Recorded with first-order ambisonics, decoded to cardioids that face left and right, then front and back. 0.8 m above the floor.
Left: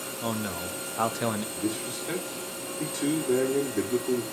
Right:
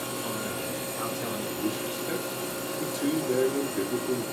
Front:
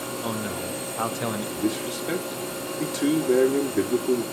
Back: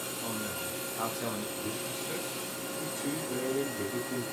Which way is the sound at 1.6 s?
5° left.